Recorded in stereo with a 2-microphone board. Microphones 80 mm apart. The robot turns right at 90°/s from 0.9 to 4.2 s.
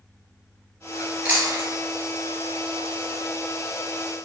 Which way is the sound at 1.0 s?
10° left (ahead or behind).